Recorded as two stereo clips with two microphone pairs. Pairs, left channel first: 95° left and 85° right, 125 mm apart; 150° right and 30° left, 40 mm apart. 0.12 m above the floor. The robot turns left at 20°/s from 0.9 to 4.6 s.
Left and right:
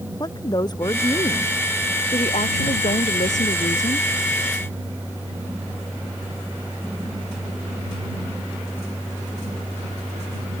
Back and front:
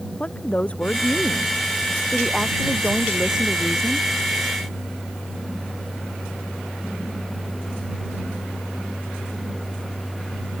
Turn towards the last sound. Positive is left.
turn(degrees=75)